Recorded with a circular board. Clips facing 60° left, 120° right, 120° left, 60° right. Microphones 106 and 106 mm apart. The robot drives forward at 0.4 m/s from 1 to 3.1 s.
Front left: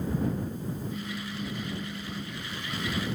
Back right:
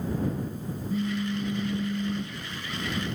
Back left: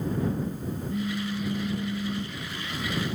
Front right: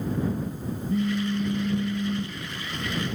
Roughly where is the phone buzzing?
Right.